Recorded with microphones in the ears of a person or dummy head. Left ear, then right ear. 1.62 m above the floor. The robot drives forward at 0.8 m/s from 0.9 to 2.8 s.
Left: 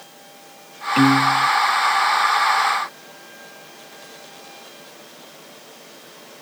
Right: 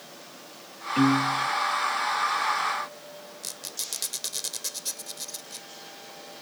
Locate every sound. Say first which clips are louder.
1.0 s a piano: left 8 dB; 40° left (ahead or behind); by 1.5 s 45° left (ahead or behind)
3.4 s a squeak: right 4 dB; 75° right (ahead or behind)